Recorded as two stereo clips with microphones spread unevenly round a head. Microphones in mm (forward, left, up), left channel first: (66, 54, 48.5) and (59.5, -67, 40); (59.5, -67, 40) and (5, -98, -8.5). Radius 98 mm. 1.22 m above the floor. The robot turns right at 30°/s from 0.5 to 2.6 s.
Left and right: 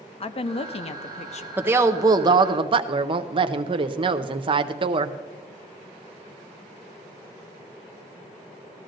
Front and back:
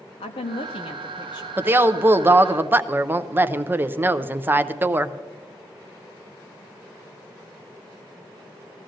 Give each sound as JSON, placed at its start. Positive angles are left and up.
{"t": 0.2, "sound": "a woman speaking", "azimuth_deg": 55, "distance_m": 0.8}
{"t": 1.6, "sound": "a woman speaking", "azimuth_deg": -165, "distance_m": 0.6}